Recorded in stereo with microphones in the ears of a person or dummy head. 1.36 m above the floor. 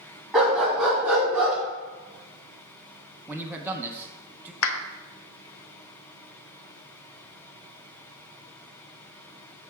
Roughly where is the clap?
Left.